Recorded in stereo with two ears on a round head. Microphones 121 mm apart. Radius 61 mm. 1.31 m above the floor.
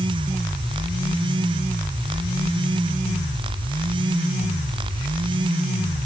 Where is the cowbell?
No cowbell in this recording.